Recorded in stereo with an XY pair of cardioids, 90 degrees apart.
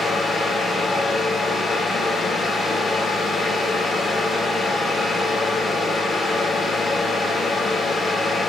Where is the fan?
50° left, 2 m.